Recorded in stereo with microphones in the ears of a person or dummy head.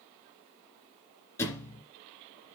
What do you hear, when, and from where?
1.4 s a thud: 10° left (ahead or behind), 2.5 m